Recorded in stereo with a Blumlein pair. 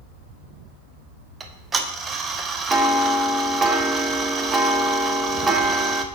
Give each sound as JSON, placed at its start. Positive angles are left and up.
{"t": 1.4, "sound": "ticking", "azimuth_deg": -20, "distance_m": 0.6}